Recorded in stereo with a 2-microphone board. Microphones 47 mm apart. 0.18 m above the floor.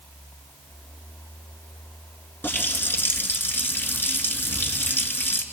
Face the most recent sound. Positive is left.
turn(degrees=45)  # may be behind; listen again after turning